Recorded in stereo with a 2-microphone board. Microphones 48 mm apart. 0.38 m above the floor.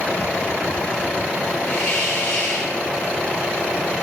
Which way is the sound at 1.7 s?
30° left (ahead or behind).